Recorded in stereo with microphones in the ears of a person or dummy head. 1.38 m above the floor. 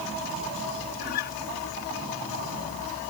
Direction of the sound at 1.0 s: 55° left (ahead or behind).